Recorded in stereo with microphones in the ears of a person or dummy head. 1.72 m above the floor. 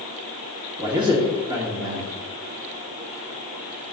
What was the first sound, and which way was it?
A man speaking, 20° right (ahead or behind).